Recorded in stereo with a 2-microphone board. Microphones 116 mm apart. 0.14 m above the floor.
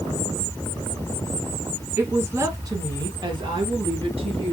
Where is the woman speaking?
15° right (ahead or behind), 1.9 m; by 4.5 s 55° right (ahead or behind), 2.5 m.